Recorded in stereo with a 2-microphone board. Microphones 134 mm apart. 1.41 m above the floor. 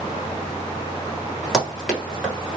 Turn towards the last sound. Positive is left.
turn(degrees=0)  # may be behind; listen again after turning